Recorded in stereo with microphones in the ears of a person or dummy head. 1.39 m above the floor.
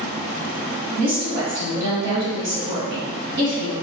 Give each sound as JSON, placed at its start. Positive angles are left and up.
{"t": 1.0, "sound": "a woman speaking", "side_deg": -55, "distance_m": 1.7}